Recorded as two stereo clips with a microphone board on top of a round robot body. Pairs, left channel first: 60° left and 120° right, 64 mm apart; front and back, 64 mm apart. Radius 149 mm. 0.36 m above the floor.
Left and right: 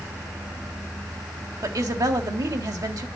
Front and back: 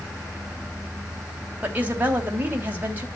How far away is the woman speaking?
About 3 m.